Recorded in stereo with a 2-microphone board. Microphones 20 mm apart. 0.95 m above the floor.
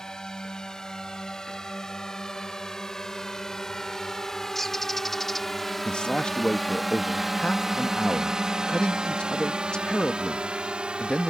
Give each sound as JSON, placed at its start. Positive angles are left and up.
{"t": 0.0, "sound": "a drone", "side_deg": 35}
{"t": 4.5, "sound": "a bird", "side_deg": 10}
{"t": 5.8, "sound": "a man speaking", "side_deg": 55}